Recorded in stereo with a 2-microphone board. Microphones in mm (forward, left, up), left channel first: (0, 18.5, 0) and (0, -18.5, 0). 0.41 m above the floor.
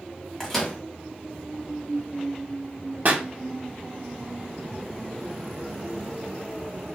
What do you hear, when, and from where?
0.4 s a microwave: 10° left (ahead or behind), 1.1 m
3.0 s a pop: 50° right (ahead or behind), 0.5 m